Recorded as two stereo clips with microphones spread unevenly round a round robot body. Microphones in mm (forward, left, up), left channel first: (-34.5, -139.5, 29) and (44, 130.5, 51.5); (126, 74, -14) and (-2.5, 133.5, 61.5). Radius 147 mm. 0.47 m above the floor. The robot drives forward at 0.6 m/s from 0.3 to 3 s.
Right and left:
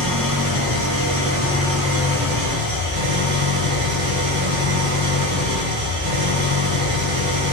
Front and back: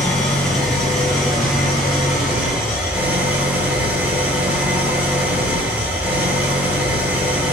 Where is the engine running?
60° left, 9.5 m; by 7.5 s 70° left, 8.5 m.